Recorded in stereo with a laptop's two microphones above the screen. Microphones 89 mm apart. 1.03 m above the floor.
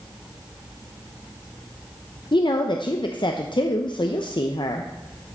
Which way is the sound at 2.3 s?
65° left (ahead or behind).